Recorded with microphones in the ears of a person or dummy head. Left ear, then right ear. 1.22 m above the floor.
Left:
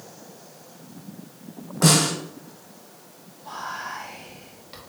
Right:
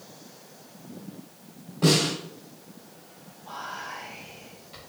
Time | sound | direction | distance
1.8 | a snare drum | 65° left (ahead or behind) | 1.9 m
3.5 | whispering | 30° left (ahead or behind) | 2 m